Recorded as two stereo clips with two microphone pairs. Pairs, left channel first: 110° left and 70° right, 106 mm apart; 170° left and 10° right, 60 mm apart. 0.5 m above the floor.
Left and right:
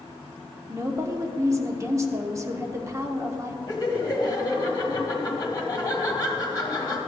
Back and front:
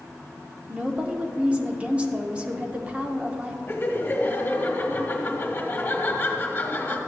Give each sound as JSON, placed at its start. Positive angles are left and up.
{"t": 0.7, "sound": "a woman speaking", "azimuth_deg": -50, "distance_m": 0.9}
{"t": 3.7, "sound": "laughter", "azimuth_deg": 140, "distance_m": 1.4}